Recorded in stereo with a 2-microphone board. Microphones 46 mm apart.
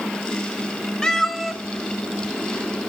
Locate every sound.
1.0 s a cat meowing: 20° left (ahead or behind), 0.8 m; by 2.9 s 55° right (ahead or behind), 1.3 m